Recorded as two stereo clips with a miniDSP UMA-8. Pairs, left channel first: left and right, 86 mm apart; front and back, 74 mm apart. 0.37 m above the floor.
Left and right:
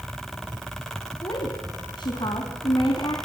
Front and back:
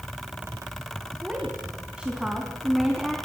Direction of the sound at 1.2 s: 110° left.